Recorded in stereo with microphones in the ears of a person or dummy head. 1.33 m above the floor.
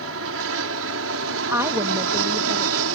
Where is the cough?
No cough in this recording.